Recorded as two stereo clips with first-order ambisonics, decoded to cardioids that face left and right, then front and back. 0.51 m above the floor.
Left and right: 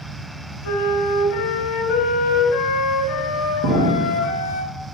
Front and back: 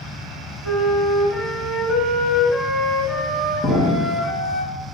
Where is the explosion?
60° right, 2.5 m.